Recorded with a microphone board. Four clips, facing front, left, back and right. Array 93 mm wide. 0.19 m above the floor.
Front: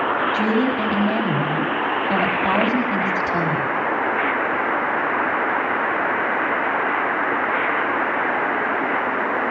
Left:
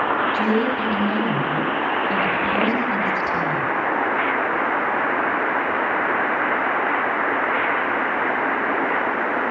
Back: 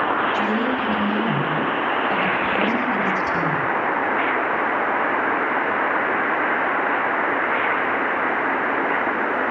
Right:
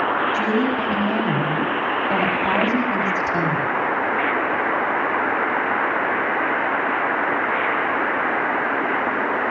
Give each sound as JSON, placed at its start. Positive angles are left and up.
{"t": 0.3, "sound": "a woman speaking", "azimuth_deg": -15, "distance_m": 6.0}